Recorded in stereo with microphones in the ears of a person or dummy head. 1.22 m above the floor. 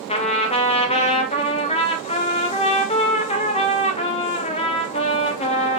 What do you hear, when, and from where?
0.1 s a trumpet: 30° left (ahead or behind), 0.6 m